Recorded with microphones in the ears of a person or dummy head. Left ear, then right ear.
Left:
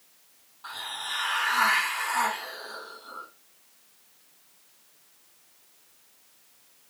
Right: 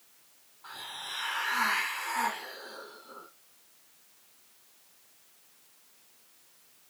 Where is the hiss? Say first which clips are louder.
Left 6 dB; 30° left (ahead or behind), 3 m.